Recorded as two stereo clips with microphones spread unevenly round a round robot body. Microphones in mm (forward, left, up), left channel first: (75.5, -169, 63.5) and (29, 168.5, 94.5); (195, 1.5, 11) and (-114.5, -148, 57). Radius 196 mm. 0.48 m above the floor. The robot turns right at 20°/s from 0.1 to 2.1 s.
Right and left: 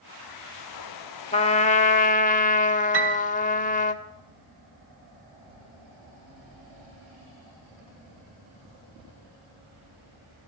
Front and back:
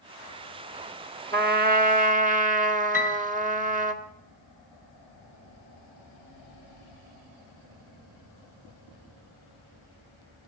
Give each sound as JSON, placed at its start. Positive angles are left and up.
{"t": 1.3, "sound": "a trumpet", "azimuth_deg": -110, "distance_m": 1.5}
{"t": 2.9, "sound": "a piano", "azimuth_deg": 120, "distance_m": 2.5}